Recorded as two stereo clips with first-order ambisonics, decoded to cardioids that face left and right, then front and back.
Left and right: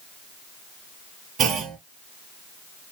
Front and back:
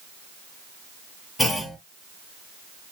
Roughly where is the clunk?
Right.